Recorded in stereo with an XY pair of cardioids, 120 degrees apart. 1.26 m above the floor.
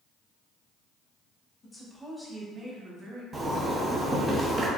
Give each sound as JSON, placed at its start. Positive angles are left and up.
{"t": 1.6, "sound": "a woman speaking", "azimuth_deg": 25, "distance_m": 1.2}
{"t": 3.3, "sound": "a zipper", "azimuth_deg": -30, "distance_m": 0.8}